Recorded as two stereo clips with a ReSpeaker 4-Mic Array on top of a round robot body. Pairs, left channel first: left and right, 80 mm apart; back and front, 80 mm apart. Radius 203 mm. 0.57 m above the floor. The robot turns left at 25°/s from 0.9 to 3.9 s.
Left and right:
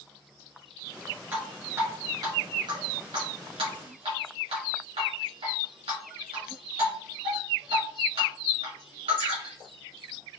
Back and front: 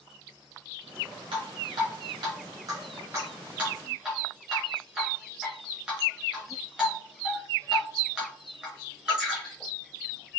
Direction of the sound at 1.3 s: 15° right.